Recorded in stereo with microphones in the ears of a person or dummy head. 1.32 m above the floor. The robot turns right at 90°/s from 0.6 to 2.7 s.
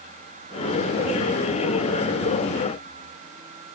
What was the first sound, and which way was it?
Only background noise.